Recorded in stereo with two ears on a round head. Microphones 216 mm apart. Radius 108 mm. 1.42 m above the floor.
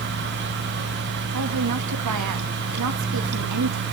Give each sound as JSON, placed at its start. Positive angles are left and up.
{"t": 1.3, "sound": "a woman speaking", "side_deg": -85, "distance_m": 1.9}